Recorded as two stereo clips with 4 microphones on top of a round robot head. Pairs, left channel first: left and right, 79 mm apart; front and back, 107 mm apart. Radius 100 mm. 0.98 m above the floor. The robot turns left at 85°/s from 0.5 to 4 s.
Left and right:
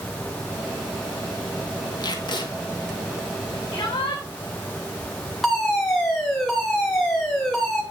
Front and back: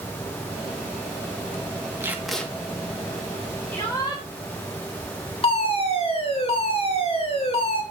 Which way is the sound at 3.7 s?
75° left.